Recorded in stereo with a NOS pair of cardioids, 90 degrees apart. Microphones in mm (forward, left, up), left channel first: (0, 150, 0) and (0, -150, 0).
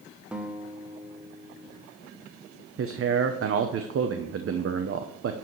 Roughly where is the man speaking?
Ahead right.